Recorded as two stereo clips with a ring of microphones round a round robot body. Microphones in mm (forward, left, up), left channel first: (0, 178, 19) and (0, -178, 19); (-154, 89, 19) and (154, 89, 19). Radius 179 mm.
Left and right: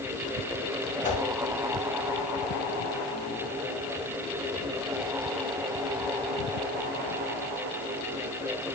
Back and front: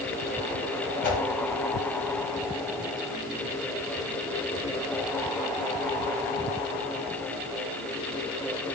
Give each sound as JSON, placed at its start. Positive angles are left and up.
{"t": 1.0, "sound": "a whoosh", "azimuth_deg": 160, "distance_m": 2.0}